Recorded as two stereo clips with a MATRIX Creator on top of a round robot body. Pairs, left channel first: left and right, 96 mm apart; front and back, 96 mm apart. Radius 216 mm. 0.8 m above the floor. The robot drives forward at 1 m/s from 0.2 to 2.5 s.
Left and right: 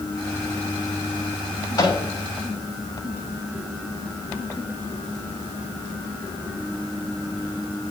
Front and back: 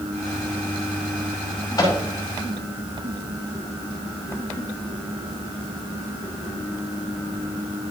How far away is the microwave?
About 5.5 m.